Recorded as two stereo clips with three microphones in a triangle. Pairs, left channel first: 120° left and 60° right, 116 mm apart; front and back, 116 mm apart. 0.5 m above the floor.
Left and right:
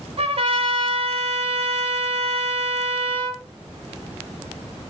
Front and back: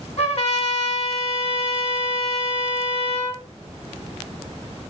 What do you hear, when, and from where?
0.2 s a trumpet: 25° right, 1.0 m